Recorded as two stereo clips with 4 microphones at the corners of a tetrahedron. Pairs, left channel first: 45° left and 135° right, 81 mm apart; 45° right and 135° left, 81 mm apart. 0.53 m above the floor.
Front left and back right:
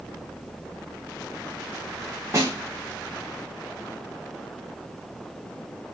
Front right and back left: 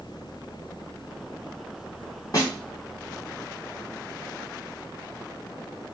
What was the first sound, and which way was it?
A snare drum, 85° right.